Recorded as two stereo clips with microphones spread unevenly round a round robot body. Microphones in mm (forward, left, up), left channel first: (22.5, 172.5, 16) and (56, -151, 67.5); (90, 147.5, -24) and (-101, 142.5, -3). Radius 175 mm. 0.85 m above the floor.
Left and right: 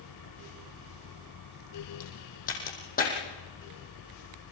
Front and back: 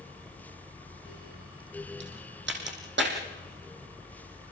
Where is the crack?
165° left, 5.5 m.